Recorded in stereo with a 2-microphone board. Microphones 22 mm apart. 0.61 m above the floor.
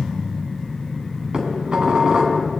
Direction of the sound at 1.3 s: 40° right (ahead or behind).